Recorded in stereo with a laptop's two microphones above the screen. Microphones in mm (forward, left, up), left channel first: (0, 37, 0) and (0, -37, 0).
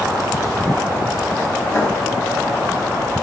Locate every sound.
1.7 s writing: 45° right (ahead or behind), 10 m